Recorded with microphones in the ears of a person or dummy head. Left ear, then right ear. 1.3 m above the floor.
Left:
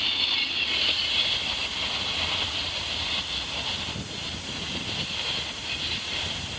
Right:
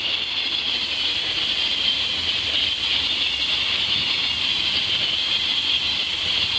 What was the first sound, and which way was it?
Only background noise.